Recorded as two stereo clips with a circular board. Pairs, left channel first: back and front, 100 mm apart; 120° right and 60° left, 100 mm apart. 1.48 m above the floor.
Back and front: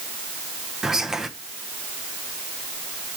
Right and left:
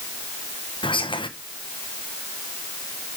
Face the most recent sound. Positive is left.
turn(degrees=-85)